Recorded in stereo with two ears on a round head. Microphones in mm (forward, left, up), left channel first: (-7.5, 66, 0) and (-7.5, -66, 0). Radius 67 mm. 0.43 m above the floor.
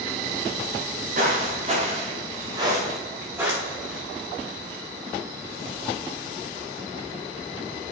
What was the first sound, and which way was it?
Footsteps, 60° right (ahead or behind).